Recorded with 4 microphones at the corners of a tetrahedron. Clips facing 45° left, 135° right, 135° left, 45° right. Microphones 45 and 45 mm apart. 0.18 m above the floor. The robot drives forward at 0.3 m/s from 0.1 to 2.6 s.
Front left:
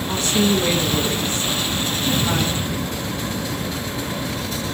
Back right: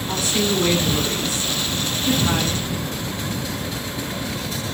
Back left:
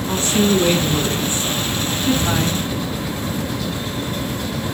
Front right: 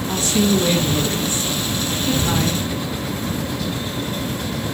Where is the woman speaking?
140° left, 1.8 m; by 2.6 s 155° left, 2.5 m.